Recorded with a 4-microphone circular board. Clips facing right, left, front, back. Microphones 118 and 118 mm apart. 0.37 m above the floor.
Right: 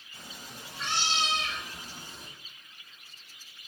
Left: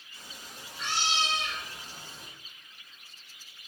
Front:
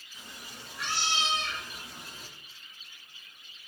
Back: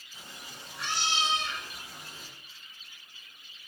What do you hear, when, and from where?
0.1 s a cat meowing: 125° right, 0.6 m; by 2.3 s 105° right, 1.7 m